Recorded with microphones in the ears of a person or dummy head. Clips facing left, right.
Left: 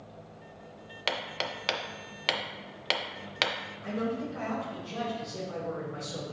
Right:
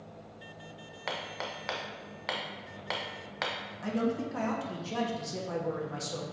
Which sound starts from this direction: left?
Hammering, at 1.1 s.